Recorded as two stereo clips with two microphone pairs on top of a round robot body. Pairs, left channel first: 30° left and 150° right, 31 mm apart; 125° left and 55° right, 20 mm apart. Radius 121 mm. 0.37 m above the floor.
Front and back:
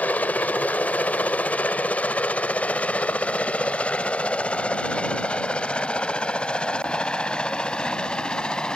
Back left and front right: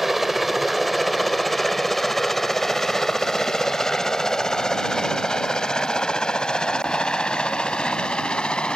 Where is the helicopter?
35° left; by 8.8 s 90° left.